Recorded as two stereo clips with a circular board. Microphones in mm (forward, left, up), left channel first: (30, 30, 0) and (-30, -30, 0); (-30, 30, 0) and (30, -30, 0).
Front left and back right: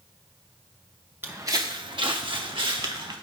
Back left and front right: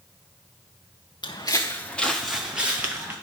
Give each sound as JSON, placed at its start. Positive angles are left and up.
{"t": 1.2, "sound": "footsteps", "azimuth_deg": 160, "distance_m": 1.0}